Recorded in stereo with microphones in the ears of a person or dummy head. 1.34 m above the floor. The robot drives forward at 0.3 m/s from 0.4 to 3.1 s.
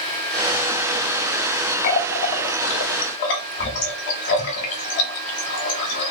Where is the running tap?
45° left (ahead or behind), 0.9 m; by 6.1 s 55° left (ahead or behind), 0.8 m.